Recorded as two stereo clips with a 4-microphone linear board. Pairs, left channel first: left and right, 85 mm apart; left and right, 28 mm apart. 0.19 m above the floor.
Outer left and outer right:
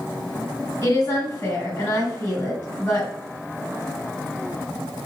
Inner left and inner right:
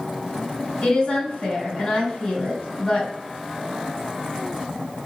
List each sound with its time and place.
0.8 s a woman speaking: 40° left (ahead or behind), 1.6 m